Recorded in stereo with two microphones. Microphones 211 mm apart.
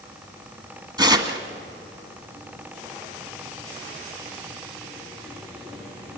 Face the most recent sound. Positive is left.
turn(degrees=-20)  # may be behind; listen again after turning